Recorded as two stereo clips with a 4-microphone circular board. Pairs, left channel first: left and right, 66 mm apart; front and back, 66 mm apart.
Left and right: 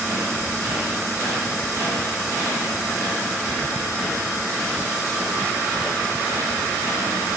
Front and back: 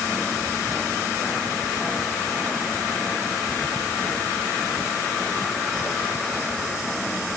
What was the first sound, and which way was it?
Only background noise.